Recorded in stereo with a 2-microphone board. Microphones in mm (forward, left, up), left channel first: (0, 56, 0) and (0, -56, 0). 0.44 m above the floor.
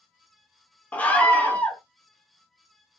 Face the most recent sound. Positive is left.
turn(degrees=15)  # may be behind; listen again after turning